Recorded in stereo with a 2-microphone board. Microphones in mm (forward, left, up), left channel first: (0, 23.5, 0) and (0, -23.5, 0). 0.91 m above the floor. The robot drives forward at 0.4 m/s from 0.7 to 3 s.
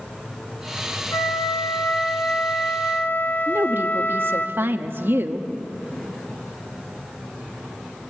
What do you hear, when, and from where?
1.1 s a flute: 70° left (ahead or behind), 1.6 m; by 4.5 s 50° left (ahead or behind), 2.0 m
3.5 s a woman speaking: 50° right (ahead or behind), 1.1 m